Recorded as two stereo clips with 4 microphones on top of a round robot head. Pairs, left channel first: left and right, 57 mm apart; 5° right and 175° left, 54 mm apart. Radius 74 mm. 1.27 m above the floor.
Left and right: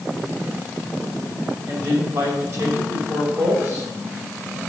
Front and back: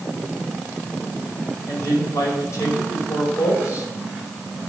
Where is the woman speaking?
45° right, 6 m.